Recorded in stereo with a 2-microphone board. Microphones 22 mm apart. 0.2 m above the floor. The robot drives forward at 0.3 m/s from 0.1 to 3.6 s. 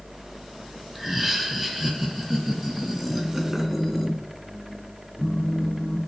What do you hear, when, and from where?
0.9 s laughter: 5° right (ahead or behind), 1.1 m
3.1 s a phone buzzing: 35° left (ahead or behind), 1.4 m